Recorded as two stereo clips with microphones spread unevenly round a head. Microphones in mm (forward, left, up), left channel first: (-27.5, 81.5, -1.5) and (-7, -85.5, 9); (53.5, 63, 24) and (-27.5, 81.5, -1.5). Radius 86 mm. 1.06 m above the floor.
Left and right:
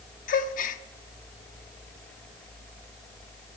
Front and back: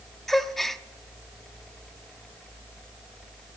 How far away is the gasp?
About 0.7 m.